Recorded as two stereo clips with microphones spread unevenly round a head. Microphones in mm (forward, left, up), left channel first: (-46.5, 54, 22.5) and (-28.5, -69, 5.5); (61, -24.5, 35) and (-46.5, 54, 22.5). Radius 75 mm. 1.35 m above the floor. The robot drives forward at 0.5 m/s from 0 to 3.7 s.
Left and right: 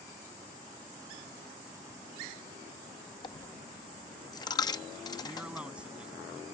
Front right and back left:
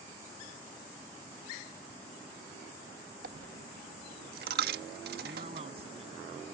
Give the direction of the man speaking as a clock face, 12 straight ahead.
5 o'clock.